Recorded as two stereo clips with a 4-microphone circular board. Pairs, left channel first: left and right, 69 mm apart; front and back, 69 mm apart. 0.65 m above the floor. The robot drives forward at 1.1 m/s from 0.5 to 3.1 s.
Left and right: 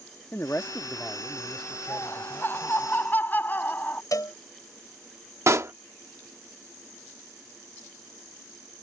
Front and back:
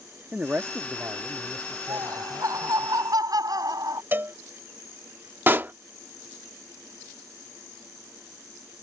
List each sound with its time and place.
0.3 s a man speaking: 125° left; by 2.9 s 170° left
1.9 s laughter: 145° left; by 4.0 s 155° left
4.1 s a cowbell: 120° left
5.5 s a pop: 125° right